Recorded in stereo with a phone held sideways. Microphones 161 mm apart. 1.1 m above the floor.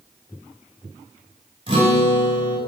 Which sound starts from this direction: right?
A guitar, at 1.7 s.